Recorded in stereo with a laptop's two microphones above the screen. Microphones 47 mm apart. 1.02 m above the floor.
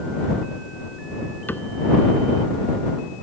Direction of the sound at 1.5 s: 45° left (ahead or behind).